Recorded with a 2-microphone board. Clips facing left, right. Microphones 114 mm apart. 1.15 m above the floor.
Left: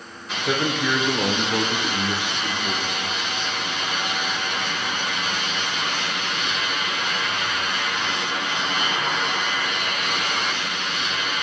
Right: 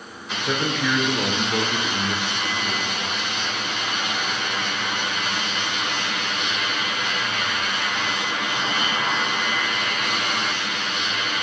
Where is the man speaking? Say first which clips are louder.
Left 1 dB; 10° left (ahead or behind), 0.8 m.